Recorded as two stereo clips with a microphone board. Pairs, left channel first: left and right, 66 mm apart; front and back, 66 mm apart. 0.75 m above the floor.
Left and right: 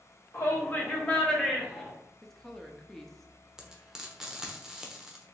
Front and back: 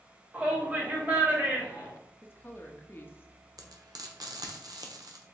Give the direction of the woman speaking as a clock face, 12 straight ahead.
12 o'clock.